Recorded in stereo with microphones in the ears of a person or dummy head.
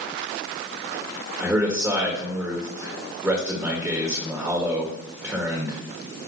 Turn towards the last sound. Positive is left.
turn(degrees=-10)  # may be behind; listen again after turning